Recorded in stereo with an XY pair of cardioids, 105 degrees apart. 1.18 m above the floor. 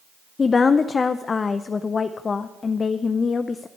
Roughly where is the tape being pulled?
No tape being pulled in this recording.